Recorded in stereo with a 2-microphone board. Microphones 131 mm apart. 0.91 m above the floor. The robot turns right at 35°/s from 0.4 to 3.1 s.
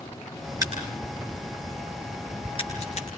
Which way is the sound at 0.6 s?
25° right (ahead or behind).